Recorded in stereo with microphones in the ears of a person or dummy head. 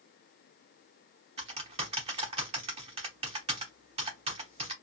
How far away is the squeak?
No squeak in this recording.